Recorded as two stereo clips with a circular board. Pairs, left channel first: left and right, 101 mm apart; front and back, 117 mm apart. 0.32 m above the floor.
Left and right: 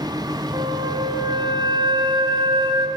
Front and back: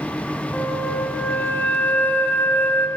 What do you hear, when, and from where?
0.5 s a flute: 75° right, 2.5 m